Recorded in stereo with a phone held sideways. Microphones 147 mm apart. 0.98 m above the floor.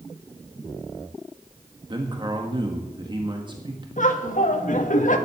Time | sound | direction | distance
1.9 | a man speaking | 35° right (ahead or behind) | 1.5 m
4.0 | laughter | 65° left (ahead or behind) | 1.8 m